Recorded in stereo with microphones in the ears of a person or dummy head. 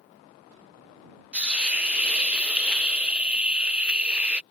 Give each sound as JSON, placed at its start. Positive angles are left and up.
{"t": 1.3, "sound": "a hiss", "side_deg": -5}